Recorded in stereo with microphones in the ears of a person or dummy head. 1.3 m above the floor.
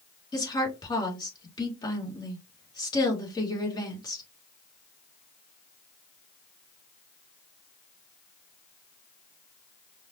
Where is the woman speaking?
20° left (ahead or behind), 2 m.